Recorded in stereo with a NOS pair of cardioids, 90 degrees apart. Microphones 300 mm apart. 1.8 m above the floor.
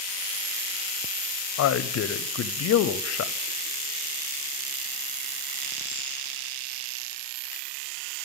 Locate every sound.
1.6 s a man speaking: 60° left, 0.7 m